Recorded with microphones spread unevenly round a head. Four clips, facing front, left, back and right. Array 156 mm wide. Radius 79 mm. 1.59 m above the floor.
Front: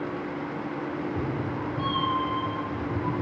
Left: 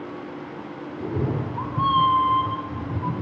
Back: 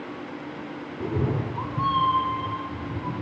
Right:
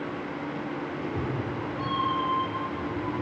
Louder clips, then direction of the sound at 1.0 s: Left 8 dB, back 7 dB; 145° left.